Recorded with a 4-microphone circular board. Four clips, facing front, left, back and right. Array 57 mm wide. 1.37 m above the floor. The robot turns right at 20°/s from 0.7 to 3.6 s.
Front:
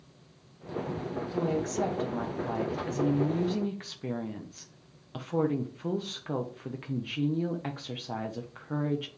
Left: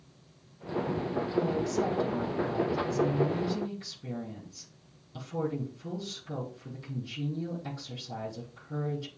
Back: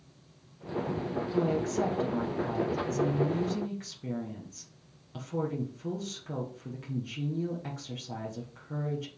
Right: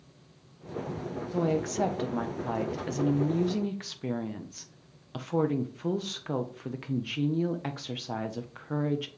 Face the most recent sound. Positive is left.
turn(degrees=-60)